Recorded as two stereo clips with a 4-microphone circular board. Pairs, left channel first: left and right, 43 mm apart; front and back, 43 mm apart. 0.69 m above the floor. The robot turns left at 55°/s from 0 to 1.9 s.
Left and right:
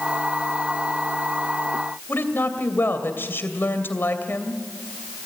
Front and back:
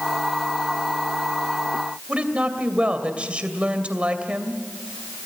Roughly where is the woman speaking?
Behind left.